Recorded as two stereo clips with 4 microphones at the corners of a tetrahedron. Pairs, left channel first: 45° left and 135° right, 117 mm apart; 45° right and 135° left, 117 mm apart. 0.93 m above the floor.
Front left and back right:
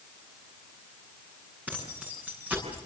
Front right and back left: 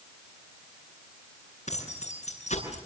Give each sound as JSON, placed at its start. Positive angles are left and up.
{"t": 1.7, "sound": "keys jangling", "azimuth_deg": -60, "distance_m": 8.5}